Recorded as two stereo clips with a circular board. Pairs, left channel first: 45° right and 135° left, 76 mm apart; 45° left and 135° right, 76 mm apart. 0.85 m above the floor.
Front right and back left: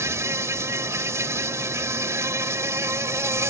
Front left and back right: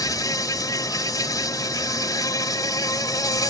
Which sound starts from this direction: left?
An insect, at 0.0 s.